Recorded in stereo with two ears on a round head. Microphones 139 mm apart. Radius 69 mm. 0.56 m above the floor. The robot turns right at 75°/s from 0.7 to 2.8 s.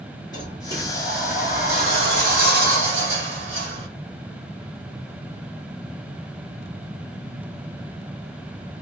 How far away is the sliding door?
About 2 m.